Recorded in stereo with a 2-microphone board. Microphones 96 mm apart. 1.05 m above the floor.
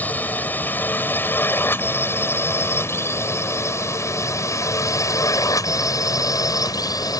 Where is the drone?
20° left (ahead or behind); by 7.2 s 40° left (ahead or behind).